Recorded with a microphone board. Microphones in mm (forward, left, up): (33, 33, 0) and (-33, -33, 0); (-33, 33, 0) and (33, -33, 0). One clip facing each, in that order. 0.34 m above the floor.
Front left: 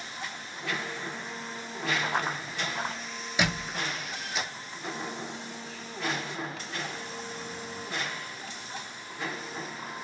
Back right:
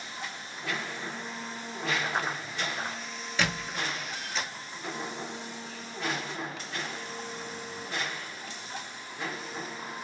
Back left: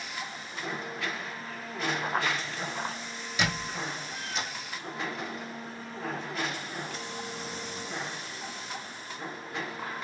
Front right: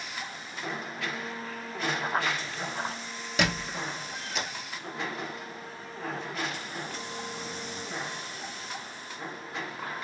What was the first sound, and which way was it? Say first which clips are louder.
Running footsteps: front left 1 dB, even; 40° left.